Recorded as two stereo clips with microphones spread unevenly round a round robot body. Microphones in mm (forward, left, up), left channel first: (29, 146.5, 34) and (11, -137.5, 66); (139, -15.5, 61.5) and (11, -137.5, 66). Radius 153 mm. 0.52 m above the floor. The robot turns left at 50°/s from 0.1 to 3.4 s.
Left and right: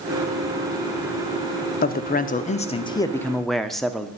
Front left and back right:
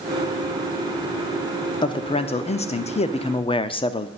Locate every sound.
1.8 s a man speaking: 85° left, 0.7 m; by 4.1 s 10° left, 0.7 m